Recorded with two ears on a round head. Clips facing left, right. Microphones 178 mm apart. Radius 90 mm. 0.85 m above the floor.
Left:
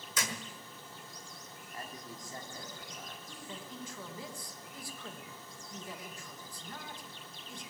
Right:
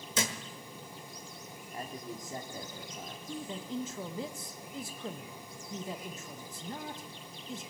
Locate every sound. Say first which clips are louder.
0.1 s a thud: right 5 dB; 25° right (ahead or behind), 1.4 m
1.7 s a man speaking: right 5 dB; 20° right (ahead or behind), 1.7 m
3.3 s a man speaking: right 11 dB; 20° right (ahead or behind), 1.0 m